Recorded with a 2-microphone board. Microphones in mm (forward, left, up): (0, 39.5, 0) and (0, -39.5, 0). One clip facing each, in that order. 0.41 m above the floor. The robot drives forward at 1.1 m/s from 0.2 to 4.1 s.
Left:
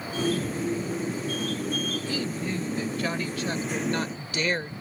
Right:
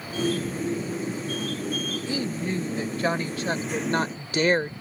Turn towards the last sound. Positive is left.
turn(degrees=-40)  # may be behind; listen again after turning